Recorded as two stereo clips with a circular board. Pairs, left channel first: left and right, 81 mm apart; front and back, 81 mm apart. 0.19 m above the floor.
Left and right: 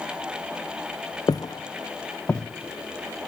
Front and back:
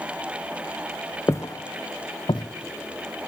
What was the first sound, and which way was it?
Footsteps, 55° left.